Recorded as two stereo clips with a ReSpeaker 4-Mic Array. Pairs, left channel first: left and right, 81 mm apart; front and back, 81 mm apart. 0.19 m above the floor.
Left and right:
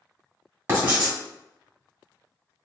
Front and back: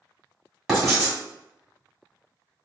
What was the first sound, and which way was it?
Writing, 85° right.